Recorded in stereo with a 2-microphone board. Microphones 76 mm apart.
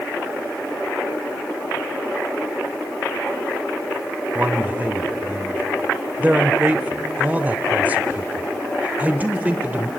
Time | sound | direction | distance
4.3 | a man speaking | 20° right (ahead or behind) | 0.9 m